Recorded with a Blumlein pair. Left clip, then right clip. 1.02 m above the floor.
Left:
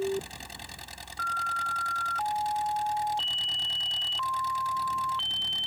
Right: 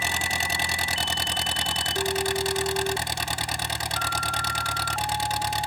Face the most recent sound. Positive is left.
turn(degrees=-55)